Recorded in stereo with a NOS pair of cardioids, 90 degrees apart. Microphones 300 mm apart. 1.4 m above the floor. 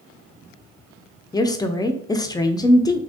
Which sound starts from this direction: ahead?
A woman speaking, at 1.3 s.